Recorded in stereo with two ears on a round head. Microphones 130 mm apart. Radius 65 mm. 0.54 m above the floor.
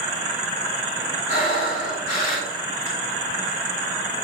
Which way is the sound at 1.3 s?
75° left (ahead or behind).